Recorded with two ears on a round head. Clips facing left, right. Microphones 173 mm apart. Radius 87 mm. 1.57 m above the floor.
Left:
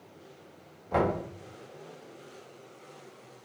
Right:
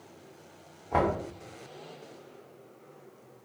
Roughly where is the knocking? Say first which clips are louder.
Even; left.